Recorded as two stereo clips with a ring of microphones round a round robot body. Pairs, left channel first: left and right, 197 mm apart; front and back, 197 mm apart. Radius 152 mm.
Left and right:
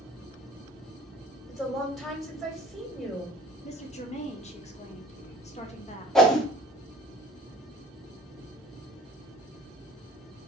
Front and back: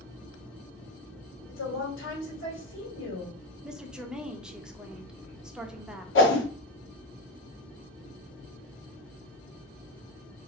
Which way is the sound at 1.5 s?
Straight ahead.